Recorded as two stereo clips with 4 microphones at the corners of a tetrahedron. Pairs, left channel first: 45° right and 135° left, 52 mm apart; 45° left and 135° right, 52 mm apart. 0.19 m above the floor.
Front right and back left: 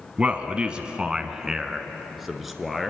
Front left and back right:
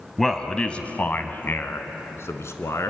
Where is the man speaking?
125° left, 1.1 m; by 2.9 s 45° left, 2 m.